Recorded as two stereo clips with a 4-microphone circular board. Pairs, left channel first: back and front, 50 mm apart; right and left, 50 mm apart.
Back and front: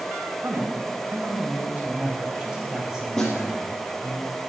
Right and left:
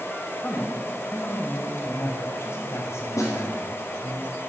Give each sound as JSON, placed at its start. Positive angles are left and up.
{"t": 0.4, "sound": "a man speaking", "azimuth_deg": -35, "distance_m": 3.5}
{"t": 3.2, "sound": "a snare drum", "azimuth_deg": -95, "distance_m": 5.5}